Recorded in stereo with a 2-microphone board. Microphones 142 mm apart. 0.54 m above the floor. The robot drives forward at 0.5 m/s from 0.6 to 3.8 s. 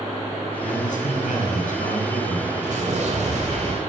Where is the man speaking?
75° left (ahead or behind), 4.5 m; by 2.5 s 65° left (ahead or behind), 5 m.